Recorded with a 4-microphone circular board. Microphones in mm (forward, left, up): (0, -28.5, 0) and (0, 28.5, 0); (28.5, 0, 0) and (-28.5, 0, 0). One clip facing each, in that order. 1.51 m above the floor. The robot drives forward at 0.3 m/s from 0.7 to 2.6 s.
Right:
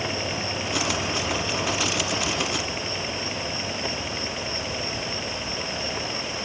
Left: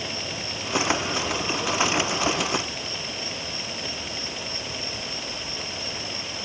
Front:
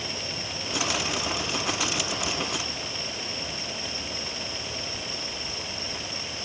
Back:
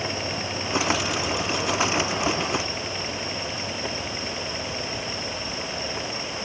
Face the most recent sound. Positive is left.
No sound to turn to.